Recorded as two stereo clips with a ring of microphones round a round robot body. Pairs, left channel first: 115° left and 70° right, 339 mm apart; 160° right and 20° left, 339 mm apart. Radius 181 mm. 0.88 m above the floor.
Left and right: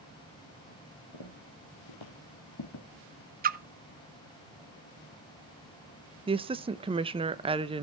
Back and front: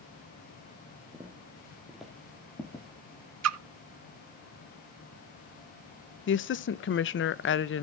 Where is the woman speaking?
130° right, 0.7 m.